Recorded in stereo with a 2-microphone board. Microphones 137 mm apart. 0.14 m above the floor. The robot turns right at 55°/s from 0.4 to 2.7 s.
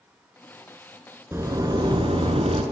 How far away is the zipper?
About 0.5 m.